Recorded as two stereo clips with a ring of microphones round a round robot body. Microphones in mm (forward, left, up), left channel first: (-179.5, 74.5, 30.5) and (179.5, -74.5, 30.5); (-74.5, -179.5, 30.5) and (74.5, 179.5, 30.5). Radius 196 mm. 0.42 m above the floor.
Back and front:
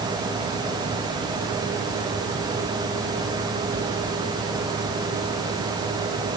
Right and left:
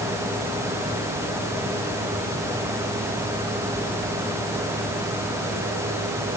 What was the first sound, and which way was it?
Only background noise.